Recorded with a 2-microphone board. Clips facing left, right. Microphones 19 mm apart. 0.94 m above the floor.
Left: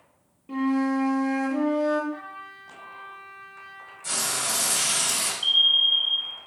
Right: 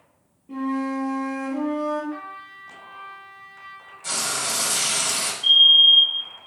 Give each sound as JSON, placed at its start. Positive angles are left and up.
{"t": 0.5, "sound": "a flute", "side_deg": 50, "distance_m": 1.1}
{"t": 2.1, "sound": "a trumpet", "side_deg": -45, "distance_m": 1.0}
{"t": 4.0, "sound": "frying", "side_deg": -15, "distance_m": 1.1}
{"t": 5.4, "sound": "a fire alarm", "side_deg": 55, "distance_m": 1.9}